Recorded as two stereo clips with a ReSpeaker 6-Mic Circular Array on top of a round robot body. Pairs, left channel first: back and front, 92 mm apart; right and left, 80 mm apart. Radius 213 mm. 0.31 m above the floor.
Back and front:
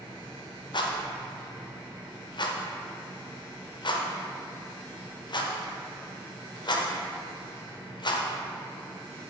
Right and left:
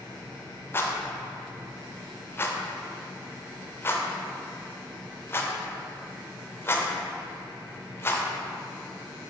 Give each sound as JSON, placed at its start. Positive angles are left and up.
{"t": 0.7, "sound": "a rattle", "azimuth_deg": -150, "distance_m": 1.0}